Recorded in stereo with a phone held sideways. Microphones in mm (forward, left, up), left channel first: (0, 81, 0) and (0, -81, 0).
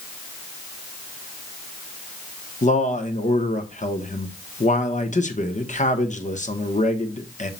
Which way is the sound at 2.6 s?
50° left (ahead or behind).